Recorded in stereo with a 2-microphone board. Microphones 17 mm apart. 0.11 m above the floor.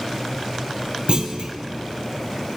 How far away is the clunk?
About 0.8 m.